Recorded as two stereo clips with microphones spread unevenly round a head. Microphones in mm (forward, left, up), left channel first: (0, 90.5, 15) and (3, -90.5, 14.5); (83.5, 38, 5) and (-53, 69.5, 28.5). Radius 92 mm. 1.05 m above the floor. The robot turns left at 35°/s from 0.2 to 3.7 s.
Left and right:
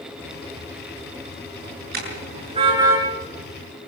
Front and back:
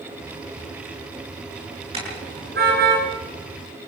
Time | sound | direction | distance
1.9 | a car horn | 130° right | 7.5 m